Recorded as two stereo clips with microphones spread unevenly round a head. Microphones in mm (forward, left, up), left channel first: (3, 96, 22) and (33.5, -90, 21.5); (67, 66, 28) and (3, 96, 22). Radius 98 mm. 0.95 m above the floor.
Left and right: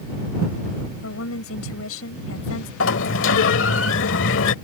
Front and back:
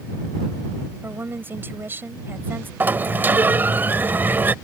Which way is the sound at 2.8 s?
90° left.